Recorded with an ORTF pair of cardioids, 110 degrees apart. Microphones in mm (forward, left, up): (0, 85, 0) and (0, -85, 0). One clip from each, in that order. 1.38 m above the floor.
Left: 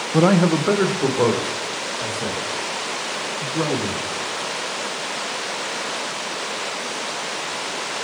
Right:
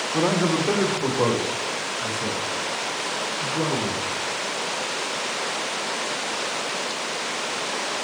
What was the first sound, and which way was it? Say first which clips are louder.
A man speaking: left 5 dB; 40° left.